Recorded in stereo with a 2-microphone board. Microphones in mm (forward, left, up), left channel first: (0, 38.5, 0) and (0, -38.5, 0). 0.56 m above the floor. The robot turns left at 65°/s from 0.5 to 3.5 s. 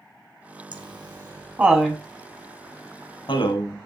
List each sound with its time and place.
0.7 s laughter: 75° right (ahead or behind), 3.5 m; by 3.8 s 75° left (ahead or behind), 3.5 m